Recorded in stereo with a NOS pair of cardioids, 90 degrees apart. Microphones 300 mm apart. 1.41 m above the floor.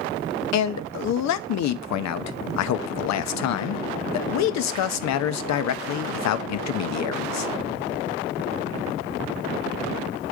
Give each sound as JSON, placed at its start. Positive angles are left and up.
{"t": 0.5, "sound": "a man speaking", "azimuth_deg": 70, "distance_m": 0.7}